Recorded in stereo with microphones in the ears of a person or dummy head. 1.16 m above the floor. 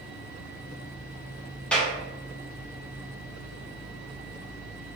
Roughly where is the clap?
Centre.